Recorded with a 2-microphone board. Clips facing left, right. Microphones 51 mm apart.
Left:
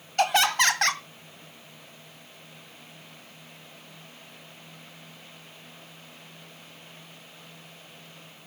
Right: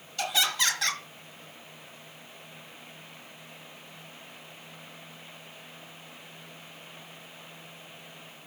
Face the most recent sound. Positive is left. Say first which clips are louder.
# left 6 dB
turn(degrees=50)  # may be behind; listen again after turning